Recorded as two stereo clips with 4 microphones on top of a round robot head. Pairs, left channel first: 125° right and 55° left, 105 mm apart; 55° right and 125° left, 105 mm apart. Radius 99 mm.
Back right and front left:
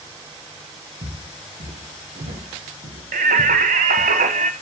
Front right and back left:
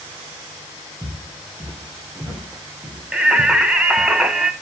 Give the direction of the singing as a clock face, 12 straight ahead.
10 o'clock.